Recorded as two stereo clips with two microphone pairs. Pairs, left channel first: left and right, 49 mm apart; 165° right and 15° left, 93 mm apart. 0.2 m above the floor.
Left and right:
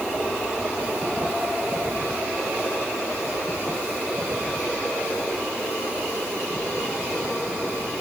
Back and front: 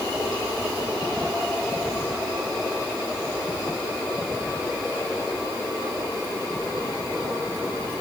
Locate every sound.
Only background noise.